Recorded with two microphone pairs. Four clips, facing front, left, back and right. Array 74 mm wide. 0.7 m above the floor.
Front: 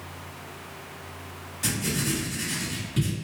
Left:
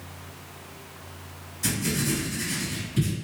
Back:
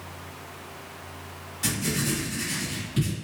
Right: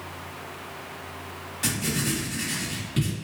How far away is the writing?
About 1.7 m.